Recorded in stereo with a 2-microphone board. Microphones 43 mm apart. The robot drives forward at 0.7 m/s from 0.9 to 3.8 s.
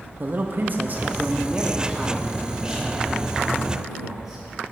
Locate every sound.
0.2 s a man speaking: 45° right (ahead or behind), 0.6 m; by 4.5 s 10° right (ahead or behind), 2.5 m